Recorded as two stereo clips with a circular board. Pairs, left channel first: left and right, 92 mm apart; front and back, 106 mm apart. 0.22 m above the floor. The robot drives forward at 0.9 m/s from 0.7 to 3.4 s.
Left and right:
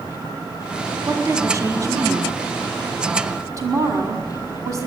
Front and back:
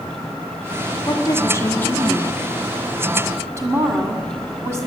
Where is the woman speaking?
40° right, 2 m; by 4.9 s 125° right, 1.9 m.